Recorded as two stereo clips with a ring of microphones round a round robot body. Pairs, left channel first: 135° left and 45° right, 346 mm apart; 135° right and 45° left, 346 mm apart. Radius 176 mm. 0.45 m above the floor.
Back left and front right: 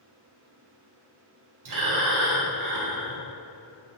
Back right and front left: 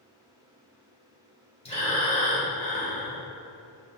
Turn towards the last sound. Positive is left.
turn(degrees=-65)